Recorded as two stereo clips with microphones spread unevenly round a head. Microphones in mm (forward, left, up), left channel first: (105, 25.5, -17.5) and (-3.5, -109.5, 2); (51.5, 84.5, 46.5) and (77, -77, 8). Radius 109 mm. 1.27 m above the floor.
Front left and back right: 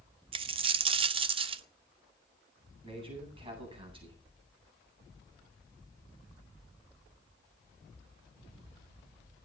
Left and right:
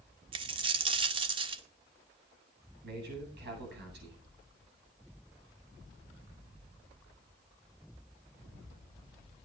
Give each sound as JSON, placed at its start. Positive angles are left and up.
{"t": 0.3, "sound": "a dropped coin", "azimuth_deg": -150, "distance_m": 0.6}
{"t": 2.8, "sound": "a man speaking", "azimuth_deg": -70, "distance_m": 8.5}